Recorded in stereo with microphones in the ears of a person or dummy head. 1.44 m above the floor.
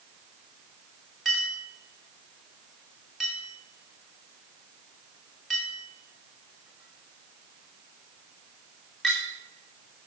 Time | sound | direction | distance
1.2 | a clink | centre (ahead or behind) | 2.5 m